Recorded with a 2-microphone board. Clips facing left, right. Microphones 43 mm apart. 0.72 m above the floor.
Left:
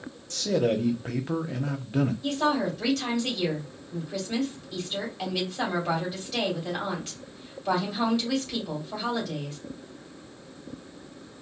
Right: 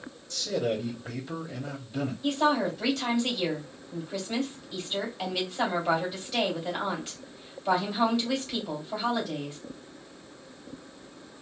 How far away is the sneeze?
I don't hear a sneeze.